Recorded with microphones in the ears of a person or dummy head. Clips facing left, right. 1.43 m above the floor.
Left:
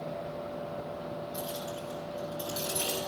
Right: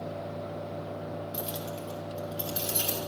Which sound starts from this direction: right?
Keys jangling, at 1.3 s.